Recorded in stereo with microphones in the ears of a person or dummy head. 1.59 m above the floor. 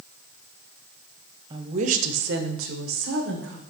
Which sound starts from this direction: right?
A woman speaking, at 1.5 s.